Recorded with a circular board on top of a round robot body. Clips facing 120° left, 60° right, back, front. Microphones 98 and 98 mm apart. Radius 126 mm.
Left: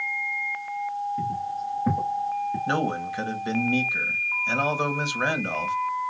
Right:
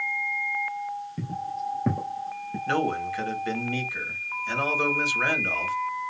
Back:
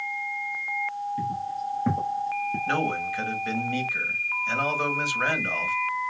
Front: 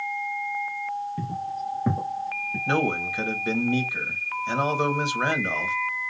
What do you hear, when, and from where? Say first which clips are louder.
1.2 s footsteps: left 3 dB, back 1 dB; 50° right, 1.3 m; by 2.6 s 130° right, 0.9 m
2.7 s a man speaking: right 5 dB, front 5 dB; 60° left, 1.3 m